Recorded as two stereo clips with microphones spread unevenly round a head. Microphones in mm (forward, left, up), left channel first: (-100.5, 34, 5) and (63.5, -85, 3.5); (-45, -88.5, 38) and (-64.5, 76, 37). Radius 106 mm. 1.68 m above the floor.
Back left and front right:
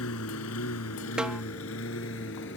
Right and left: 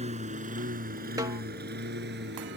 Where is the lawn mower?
145° left; by 2.6 s 105° left.